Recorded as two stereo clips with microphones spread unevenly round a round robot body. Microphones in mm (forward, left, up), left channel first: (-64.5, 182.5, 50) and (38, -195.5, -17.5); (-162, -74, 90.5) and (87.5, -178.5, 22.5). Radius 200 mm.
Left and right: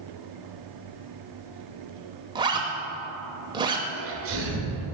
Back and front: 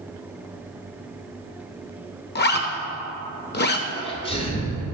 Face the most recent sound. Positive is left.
turn(degrees=-125)